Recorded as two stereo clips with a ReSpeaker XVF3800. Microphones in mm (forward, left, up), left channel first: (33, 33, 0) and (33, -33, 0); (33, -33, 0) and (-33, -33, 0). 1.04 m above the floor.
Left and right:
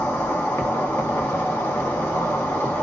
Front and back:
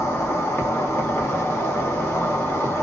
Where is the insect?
45° left, 0.7 m.